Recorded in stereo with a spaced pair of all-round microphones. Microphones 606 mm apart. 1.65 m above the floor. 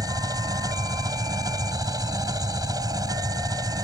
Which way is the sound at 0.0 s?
5° right (ahead or behind).